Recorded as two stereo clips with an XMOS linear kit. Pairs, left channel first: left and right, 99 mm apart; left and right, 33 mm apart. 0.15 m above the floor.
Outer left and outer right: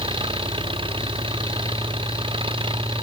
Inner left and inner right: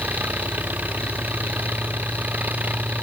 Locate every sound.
0.0 s an engine running: 60° right (ahead or behind)